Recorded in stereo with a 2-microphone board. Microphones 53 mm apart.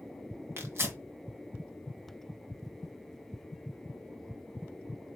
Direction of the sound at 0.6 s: 45° right (ahead or behind).